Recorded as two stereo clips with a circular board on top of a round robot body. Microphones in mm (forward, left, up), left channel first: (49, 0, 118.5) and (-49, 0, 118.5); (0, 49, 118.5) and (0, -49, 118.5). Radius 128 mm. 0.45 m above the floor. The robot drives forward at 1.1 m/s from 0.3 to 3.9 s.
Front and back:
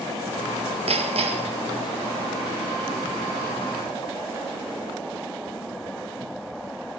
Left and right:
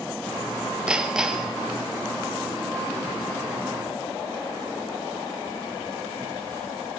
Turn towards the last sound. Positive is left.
turn(degrees=180)